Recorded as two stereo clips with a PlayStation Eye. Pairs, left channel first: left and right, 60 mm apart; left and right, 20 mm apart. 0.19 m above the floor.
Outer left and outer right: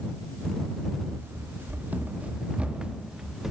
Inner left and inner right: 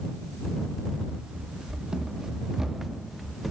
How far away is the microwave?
No microwave in this recording.